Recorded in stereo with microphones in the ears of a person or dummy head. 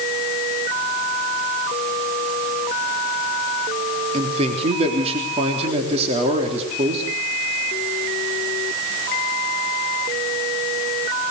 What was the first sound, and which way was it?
A man speaking, 35° right (ahead or behind).